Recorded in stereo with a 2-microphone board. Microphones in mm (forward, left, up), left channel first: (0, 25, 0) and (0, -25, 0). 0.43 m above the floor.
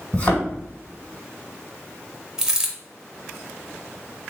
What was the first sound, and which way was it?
A thud, 35° left (ahead or behind).